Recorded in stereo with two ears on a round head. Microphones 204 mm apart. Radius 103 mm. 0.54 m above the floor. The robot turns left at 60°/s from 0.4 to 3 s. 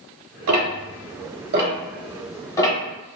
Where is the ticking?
65° right (ahead or behind), 1.0 m; by 2.8 s 25° left (ahead or behind), 1.0 m.